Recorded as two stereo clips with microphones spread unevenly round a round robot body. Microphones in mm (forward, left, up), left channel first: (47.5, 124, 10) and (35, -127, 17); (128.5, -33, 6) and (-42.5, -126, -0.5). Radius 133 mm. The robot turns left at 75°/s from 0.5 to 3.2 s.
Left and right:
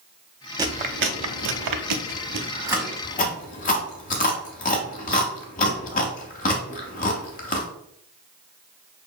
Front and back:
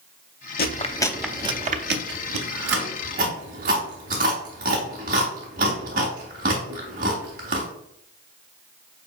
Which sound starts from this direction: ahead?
Chewing, at 0.6 s.